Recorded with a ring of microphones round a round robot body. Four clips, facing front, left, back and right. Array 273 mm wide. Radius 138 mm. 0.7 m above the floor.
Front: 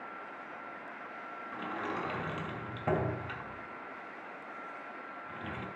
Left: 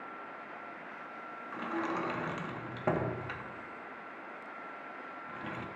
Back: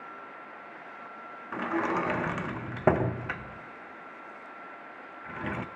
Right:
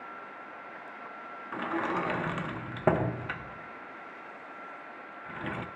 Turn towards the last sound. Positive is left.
turn(degrees=-155)